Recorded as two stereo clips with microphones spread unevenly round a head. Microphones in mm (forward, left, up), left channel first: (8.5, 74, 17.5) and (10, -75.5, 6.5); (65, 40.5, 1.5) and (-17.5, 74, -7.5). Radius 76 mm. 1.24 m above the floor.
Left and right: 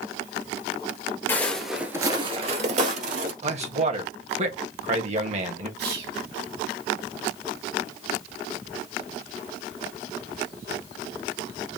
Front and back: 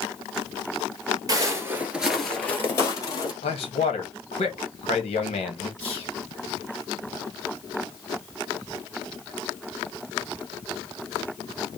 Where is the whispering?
100° right, 2.5 m.